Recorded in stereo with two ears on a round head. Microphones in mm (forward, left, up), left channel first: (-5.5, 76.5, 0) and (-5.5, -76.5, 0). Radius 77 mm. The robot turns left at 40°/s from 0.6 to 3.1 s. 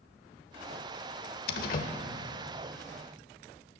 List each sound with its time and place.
1.5 s a door slam: 65° left (ahead or behind), 0.9 m; by 1.9 s 50° left (ahead or behind), 0.9 m